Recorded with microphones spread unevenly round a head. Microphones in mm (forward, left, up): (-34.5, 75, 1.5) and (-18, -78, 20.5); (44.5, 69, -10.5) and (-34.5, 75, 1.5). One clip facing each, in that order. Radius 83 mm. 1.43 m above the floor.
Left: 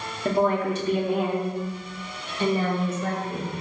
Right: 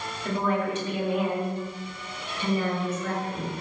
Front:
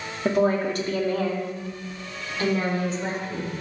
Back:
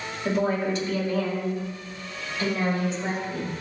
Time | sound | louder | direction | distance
0.2 | a woman speaking | left 5 dB, front 3 dB | 30° left | 2.5 m